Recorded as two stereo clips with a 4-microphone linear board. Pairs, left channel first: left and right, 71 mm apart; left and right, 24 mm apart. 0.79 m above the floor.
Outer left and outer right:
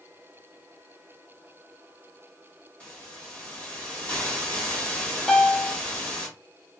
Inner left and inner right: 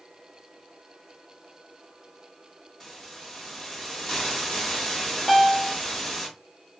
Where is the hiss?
15° left (ahead or behind), 0.9 m.